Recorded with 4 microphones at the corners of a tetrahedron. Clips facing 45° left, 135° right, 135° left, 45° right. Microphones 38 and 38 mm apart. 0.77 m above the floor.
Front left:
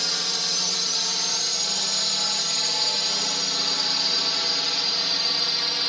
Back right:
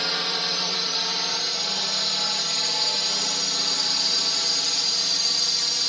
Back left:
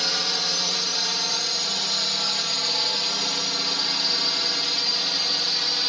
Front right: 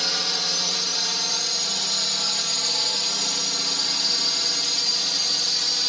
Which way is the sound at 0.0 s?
145° right.